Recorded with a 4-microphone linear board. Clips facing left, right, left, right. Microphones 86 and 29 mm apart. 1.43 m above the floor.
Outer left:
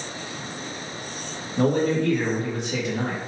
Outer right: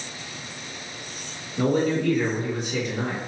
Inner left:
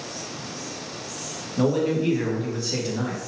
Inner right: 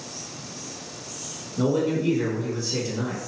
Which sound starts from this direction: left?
A man speaking, at 1.6 s.